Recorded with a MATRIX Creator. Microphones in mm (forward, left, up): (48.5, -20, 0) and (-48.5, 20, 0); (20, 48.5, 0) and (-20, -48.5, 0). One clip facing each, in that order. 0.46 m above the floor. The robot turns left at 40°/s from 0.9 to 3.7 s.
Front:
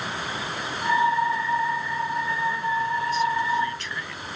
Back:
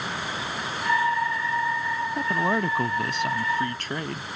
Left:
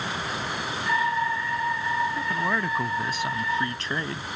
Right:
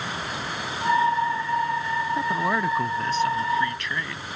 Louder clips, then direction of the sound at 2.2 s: Back 2 dB, right 3 dB; 175° right.